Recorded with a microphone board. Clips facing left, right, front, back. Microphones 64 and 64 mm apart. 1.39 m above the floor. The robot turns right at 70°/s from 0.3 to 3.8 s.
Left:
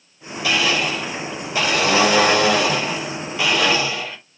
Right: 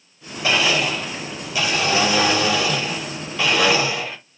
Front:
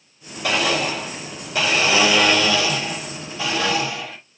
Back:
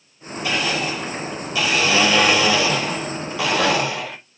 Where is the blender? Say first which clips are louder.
Right 1 dB, front 2 dB; 35° right, 5 m; by 4.2 s 160° right, 5 m.